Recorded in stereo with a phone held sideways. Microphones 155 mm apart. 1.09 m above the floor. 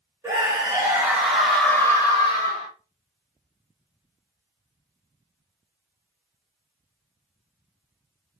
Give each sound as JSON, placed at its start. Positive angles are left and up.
{"t": 0.2, "sound": "a scream", "side_deg": -20, "distance_m": 1.9}